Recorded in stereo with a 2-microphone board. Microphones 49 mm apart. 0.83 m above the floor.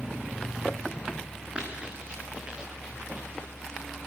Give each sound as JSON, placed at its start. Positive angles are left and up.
{"t": 1.6, "sound": "running footsteps", "side_deg": -25, "distance_m": 3.5}